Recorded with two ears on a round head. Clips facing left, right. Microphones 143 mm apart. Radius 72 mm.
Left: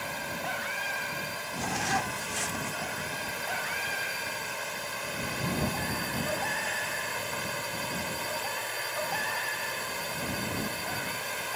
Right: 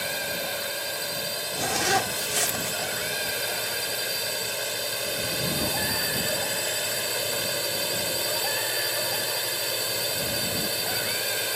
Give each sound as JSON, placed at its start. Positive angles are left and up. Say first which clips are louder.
{"t": 0.0, "sound": "a drone", "louder": "right 4 dB", "side_deg": -40}
{"t": 1.6, "sound": "a zipper", "louder": "right 5 dB", "side_deg": -65}